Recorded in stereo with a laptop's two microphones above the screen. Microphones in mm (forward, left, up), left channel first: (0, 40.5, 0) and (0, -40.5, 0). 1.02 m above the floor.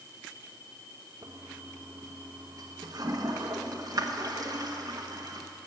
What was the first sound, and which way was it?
A toilet flushing, 50° right (ahead or behind).